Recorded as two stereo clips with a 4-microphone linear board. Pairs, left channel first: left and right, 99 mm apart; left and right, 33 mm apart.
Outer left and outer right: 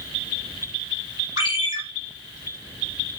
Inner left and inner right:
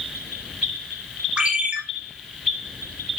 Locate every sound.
1.4 s a ringtone: 40° right (ahead or behind), 3 m